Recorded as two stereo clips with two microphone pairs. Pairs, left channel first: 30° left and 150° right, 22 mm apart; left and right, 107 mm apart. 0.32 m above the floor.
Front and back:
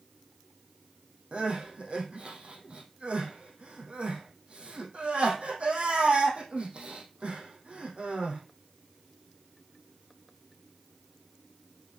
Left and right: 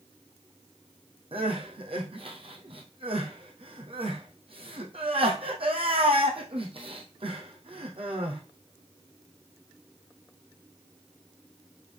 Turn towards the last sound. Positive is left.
turn(degrees=-120)